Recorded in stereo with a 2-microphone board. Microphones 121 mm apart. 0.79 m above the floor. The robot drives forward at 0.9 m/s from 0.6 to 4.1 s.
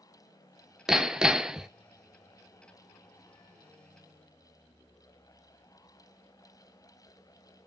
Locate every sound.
0.9 s hammering: 5° right (ahead or behind), 0.7 m